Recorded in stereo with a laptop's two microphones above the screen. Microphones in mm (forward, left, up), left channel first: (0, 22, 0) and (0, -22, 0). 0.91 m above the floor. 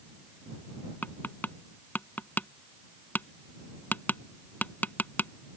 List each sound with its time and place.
1.0 s tapping: 45° left (ahead or behind)